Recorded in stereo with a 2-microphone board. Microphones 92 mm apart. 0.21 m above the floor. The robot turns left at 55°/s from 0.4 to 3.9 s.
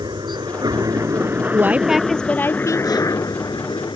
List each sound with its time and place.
0.0 s a helicopter: 50° right (ahead or behind); by 4.0 s 65° left (ahead or behind)
1.5 s a woman speaking: 155° right; by 3.0 s 125° left